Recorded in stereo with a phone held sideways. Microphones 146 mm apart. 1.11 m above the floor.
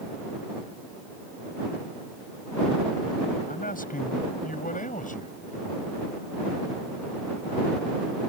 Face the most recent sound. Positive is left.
turn(degrees=65)  # may be behind; listen again after turning